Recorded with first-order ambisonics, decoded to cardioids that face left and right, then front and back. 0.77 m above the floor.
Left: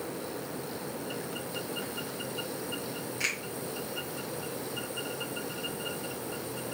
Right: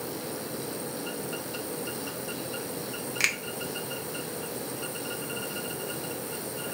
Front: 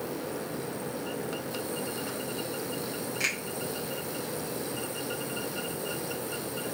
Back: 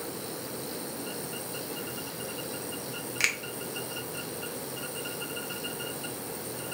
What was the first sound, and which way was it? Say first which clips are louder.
A finger snap: right 5 dB, back 3 dB; 130° right.